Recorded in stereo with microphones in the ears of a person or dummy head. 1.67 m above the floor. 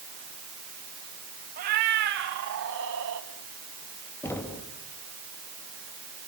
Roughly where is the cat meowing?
Right.